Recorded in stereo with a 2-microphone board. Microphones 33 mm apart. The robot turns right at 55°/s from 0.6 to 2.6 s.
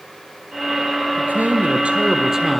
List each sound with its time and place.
1.2 s a man speaking: 80° right, 2.5 m; by 2.6 s straight ahead, 2.5 m